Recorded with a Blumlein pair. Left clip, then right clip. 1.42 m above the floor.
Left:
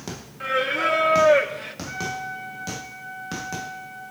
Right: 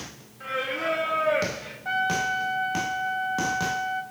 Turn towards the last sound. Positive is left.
turn(degrees=-40)